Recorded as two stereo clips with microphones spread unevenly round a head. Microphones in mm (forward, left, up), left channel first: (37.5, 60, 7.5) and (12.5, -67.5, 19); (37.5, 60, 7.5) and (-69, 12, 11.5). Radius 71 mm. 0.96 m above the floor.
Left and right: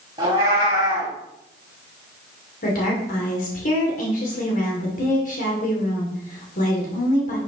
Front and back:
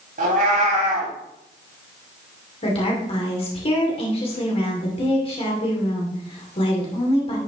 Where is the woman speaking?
60° left, 2.5 m.